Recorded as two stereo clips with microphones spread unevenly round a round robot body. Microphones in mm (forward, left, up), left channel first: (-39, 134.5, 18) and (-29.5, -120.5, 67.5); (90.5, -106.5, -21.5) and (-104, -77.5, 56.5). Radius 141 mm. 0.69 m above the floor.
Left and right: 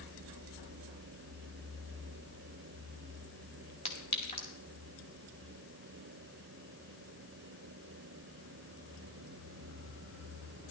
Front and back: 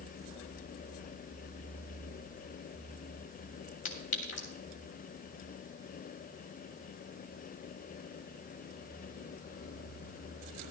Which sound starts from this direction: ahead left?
A clink, at 3.9 s.